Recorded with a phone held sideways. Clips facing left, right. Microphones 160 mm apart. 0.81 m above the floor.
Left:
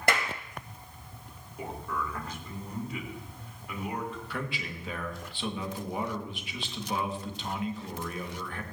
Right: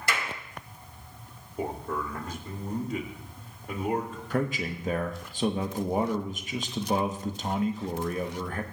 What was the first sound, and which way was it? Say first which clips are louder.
A clap: left 4 dB; 60° left (ahead or behind).